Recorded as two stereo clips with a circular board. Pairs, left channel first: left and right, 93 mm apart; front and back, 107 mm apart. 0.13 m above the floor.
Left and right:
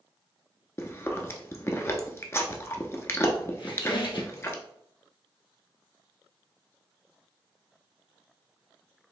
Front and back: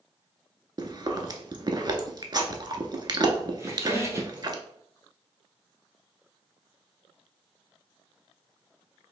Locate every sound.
0.8 s chewing: 145° left, 0.5 m
3.6 s a squeak: 120° left, 1.0 m